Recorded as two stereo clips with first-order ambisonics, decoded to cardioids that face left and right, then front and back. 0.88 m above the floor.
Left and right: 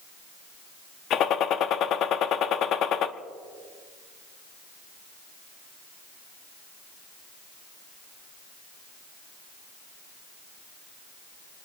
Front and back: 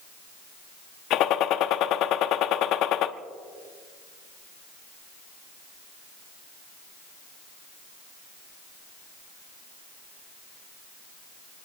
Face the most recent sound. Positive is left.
turn(degrees=40)